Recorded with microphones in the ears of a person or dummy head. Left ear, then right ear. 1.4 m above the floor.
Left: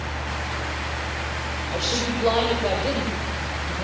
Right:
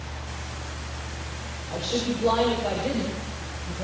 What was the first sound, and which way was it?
A woman speaking, 40° left (ahead or behind).